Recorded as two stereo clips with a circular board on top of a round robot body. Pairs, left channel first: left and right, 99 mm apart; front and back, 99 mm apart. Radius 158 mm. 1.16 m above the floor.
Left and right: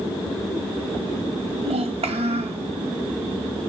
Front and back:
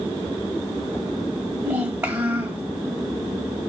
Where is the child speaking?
115° right, 1.4 m.